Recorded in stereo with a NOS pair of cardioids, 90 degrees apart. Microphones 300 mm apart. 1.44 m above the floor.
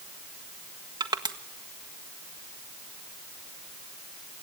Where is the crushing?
15° right, 1.6 m.